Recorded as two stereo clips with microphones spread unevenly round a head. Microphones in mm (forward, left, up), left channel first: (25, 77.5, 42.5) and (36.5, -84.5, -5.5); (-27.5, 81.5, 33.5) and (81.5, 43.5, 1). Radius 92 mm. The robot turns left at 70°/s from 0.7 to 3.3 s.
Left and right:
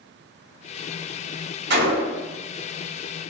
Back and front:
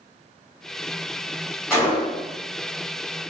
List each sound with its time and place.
1.7 s a gunshot: 105° right, 0.9 m; by 2.3 s 150° right, 0.9 m